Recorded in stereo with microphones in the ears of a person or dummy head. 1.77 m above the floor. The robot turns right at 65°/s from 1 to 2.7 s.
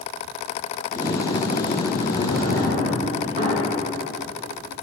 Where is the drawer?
60° right (ahead or behind), 2.5 m; by 4.8 s 40° right (ahead or behind), 2.5 m.